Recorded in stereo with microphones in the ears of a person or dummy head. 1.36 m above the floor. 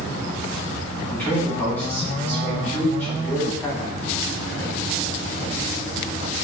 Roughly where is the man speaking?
Centre.